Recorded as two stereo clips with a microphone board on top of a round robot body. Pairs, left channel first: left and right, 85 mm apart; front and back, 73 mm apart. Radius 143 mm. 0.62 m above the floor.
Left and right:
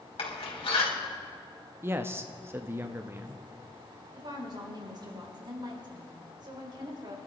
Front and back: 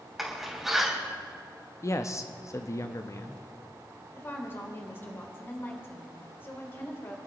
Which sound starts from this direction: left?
A door slam, at 0.2 s.